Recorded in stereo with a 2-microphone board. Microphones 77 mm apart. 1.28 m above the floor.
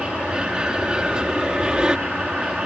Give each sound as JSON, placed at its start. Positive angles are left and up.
{"t": 0.0, "sound": "an aircraft", "side_deg": -10}